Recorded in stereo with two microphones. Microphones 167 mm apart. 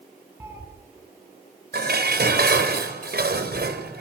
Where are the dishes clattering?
70° right (ahead or behind), 4 m.